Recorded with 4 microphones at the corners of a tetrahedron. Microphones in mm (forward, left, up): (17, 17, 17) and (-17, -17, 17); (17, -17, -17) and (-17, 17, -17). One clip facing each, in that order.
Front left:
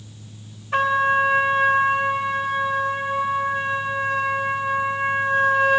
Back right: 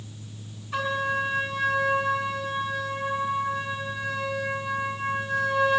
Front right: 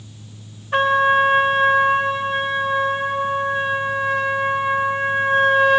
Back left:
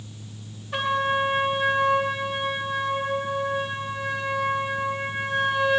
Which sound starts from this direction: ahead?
A trumpet, at 0.7 s.